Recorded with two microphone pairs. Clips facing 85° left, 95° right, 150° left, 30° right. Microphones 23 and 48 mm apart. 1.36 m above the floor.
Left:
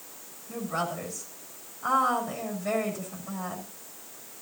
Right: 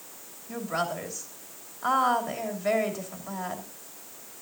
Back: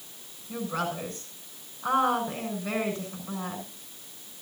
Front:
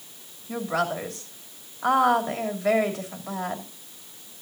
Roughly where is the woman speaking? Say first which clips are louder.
Right 1 dB, front 5 dB; ahead right.